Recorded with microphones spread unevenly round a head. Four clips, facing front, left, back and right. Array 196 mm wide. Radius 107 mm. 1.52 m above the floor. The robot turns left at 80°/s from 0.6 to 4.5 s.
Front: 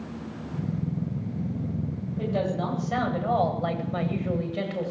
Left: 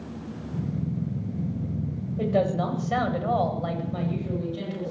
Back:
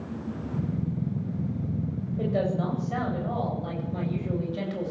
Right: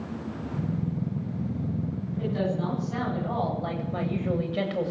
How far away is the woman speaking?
About 9 m.